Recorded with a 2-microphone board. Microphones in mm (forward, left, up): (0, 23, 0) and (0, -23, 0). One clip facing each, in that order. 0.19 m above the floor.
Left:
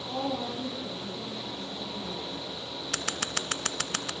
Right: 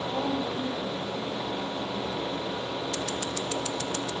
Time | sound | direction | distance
0.1 | a woman speaking | 10° right (ahead or behind) | 9 m
2.9 | scissors | 70° left (ahead or behind) | 0.5 m